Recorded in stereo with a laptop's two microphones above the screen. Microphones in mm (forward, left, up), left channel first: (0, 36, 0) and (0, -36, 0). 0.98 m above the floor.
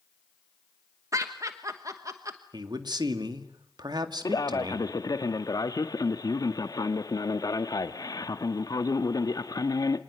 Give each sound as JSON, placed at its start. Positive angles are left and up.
{"t": 1.1, "sound": "laughter", "side_deg": -50, "distance_m": 1.1}
{"t": 2.5, "sound": "a man speaking", "side_deg": -75, "distance_m": 1.8}
{"t": 4.2, "sound": "a man speaking", "side_deg": 60, "distance_m": 1.5}